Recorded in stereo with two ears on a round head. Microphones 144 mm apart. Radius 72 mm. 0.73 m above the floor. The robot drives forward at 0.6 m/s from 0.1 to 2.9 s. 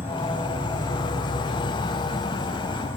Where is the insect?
15° left (ahead or behind), 1.0 m.